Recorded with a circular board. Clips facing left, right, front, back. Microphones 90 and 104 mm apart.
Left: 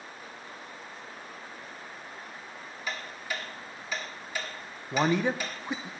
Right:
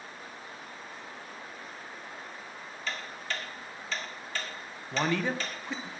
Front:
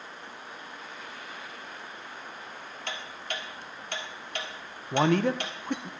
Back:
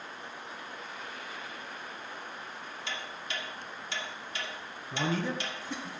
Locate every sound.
2.9 s ticking: 15° left, 1.5 m
4.9 s a man speaking: 20° left, 0.7 m